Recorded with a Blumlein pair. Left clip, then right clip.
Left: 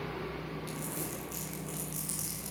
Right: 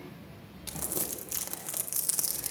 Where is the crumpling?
65° right, 0.8 m.